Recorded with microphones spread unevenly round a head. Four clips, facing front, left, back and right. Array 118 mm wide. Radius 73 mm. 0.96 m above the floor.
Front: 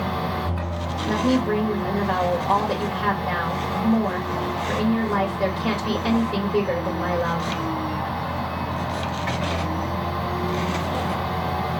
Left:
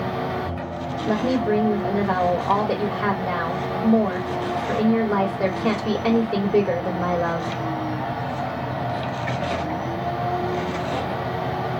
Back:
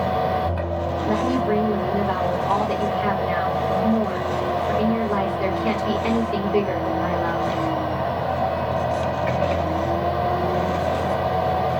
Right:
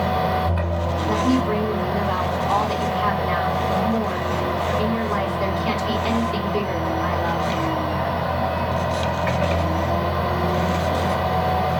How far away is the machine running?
About 1.0 m.